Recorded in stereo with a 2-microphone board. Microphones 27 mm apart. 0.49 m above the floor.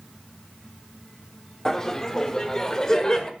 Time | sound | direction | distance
1.6 | laughter | 20° left (ahead or behind) | 0.9 m